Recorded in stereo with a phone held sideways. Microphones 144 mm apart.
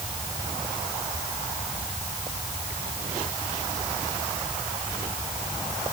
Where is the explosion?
No explosion in this recording.